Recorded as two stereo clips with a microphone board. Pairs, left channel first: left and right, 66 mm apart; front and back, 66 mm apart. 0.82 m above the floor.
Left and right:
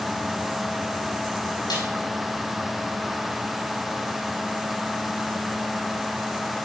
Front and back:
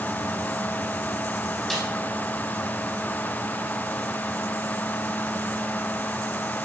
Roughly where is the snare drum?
Left.